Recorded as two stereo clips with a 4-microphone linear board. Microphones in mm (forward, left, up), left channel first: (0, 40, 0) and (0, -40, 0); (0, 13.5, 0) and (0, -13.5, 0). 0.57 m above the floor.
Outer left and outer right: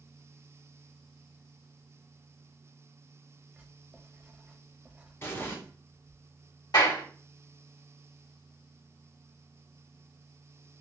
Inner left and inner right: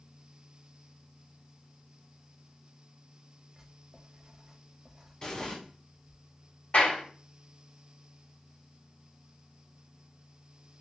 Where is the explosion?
30° left (ahead or behind), 0.8 m.